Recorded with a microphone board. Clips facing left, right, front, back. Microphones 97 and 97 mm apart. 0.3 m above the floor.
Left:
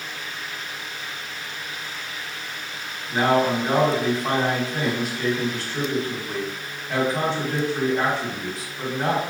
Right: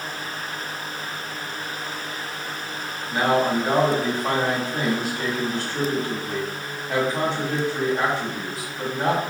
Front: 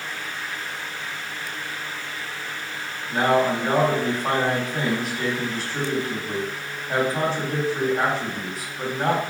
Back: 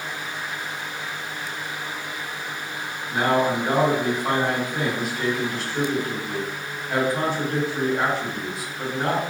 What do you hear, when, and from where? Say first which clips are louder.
3.1 s a man speaking: left 1 dB, front 1 dB; 40° right, 1.8 m